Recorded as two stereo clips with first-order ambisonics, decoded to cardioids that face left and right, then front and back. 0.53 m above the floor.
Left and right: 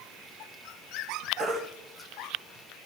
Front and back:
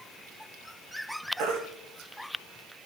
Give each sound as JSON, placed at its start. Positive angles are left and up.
{"t": 1.4, "sound": "a baby crying", "azimuth_deg": -175, "distance_m": 4.0}